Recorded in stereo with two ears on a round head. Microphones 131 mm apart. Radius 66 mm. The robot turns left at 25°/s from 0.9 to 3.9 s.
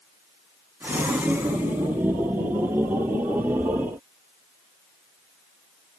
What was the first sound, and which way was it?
Only background noise.